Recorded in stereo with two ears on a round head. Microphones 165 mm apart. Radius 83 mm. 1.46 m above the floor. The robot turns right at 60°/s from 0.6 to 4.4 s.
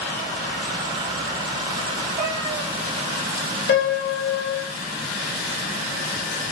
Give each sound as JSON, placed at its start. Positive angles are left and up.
{"t": 2.2, "sound": "a cat meowing", "azimuth_deg": -55, "distance_m": 2.5}
{"t": 3.7, "sound": "a piano", "azimuth_deg": 60, "distance_m": 3.5}